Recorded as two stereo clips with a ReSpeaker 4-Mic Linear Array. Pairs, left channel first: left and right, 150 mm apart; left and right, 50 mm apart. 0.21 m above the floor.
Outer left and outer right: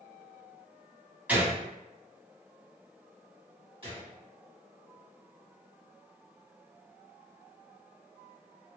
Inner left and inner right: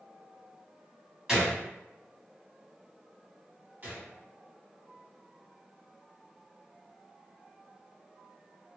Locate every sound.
1.3 s a gunshot: 10° right (ahead or behind), 1.6 m
3.8 s a gunshot: 35° right (ahead or behind), 1.8 m